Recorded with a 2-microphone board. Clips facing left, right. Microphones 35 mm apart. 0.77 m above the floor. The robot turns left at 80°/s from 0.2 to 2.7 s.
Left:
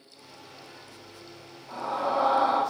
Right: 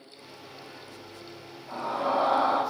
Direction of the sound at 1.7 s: 115° right.